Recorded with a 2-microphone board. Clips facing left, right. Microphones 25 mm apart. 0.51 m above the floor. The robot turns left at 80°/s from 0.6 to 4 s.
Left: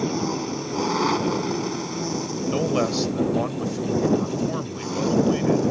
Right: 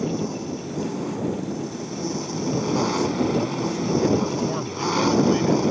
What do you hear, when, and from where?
0.0 s an engine running: 135° left; by 5.7 s 135° right
2.5 s a man speaking: 115° left; by 5.6 s 5° right